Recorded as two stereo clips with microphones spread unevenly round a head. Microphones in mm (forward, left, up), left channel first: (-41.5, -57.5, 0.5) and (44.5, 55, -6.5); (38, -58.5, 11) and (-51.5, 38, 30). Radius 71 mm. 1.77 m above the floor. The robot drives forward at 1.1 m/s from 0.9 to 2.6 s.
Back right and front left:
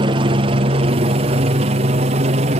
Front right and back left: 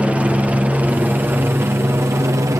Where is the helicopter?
45° left; by 2.6 s 65° left.